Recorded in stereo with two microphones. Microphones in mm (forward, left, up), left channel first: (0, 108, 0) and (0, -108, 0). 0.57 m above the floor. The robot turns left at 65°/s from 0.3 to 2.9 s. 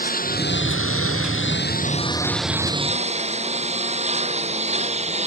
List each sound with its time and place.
0.0 s a lawn mower: 140° left; by 5.3 s 30° right